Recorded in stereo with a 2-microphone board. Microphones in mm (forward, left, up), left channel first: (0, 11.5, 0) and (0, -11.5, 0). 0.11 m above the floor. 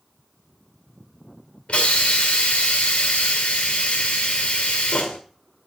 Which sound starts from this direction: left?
A hiss, at 1.7 s.